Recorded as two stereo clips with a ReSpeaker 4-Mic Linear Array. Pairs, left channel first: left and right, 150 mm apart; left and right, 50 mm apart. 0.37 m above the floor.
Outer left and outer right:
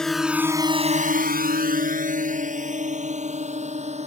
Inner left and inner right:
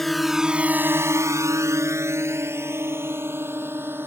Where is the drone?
5° left (ahead or behind); by 4.1 s 45° right (ahead or behind).